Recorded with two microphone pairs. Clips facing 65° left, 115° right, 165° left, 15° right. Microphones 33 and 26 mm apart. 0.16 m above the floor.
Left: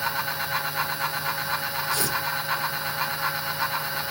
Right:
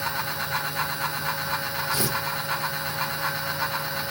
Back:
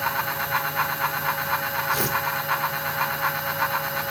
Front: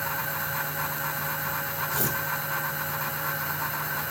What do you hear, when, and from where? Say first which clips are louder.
1.9 s tearing paper: even, back 5 dB; 175° right, 3 m